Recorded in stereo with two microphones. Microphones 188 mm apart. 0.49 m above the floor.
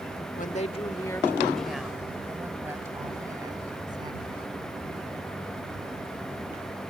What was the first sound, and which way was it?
A woman speaking, 45° left (ahead or behind).